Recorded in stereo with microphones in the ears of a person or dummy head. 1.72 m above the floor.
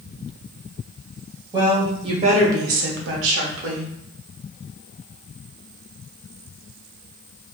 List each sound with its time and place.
1.5 s a woman speaking: 20° right (ahead or behind), 1.1 m; by 3.9 s 65° right (ahead or behind), 0.8 m